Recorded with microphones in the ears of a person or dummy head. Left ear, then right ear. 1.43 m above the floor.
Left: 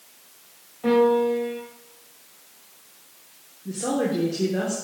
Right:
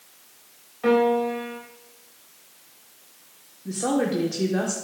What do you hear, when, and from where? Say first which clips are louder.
0.8 s a piano: left 1 dB; 55° right (ahead or behind), 3 m
3.6 s a woman speaking: right 1 dB; 30° right (ahead or behind), 1.4 m